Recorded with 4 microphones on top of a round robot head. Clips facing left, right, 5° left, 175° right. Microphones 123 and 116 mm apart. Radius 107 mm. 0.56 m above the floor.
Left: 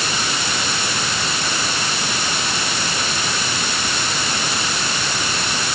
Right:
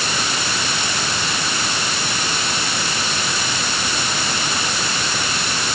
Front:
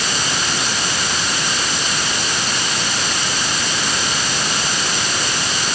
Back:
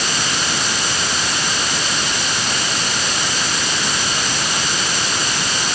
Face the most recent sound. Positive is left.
No sound to turn to.